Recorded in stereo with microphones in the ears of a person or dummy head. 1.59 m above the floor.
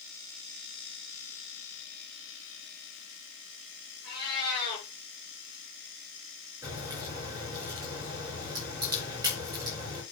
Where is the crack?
20° right (ahead or behind), 5.5 m.